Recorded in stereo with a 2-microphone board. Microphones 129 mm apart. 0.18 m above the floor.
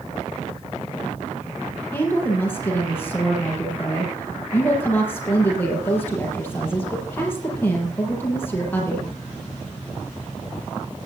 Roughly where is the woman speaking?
Centre.